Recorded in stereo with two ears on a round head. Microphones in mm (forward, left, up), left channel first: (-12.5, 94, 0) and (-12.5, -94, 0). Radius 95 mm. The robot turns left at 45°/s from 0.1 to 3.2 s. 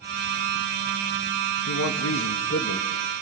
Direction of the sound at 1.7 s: 95° left.